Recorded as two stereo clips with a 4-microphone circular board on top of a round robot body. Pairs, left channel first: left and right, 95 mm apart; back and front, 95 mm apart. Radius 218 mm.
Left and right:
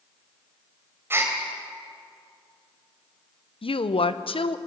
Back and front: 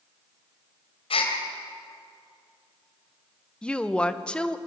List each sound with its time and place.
1.1 s a gasp: 155° right, 2.5 m
3.6 s a woman speaking: 100° left, 1.4 m